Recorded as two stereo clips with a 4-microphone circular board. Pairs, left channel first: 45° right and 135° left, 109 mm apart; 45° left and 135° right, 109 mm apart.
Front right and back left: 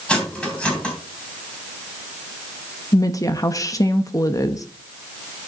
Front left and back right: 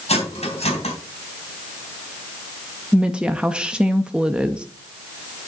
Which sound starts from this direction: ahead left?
Cutlery clinking, at 0.1 s.